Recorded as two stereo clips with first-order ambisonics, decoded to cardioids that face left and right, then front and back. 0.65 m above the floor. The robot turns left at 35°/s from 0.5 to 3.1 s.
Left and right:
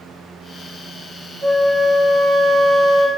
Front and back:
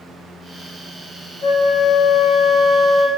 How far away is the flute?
About 1.6 m.